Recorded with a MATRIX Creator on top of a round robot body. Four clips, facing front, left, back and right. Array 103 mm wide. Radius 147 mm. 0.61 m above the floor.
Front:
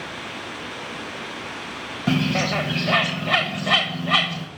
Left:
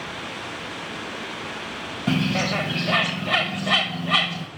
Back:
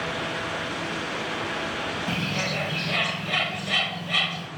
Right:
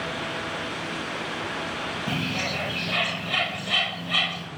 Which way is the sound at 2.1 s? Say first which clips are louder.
Left 9 dB, front 7 dB; 25° left.